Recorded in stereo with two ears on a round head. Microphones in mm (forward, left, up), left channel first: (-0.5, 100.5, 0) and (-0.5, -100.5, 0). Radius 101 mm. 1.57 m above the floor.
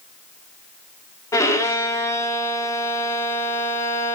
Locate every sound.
1.3 s a violin: 15° left (ahead or behind), 1.4 m